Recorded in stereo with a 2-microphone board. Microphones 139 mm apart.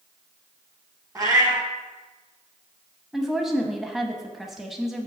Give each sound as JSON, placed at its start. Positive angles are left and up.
{"t": 1.1, "sound": "a cat meowing", "side_deg": -25, "distance_m": 1.3}
{"t": 3.1, "sound": "a woman speaking", "side_deg": 0, "distance_m": 0.8}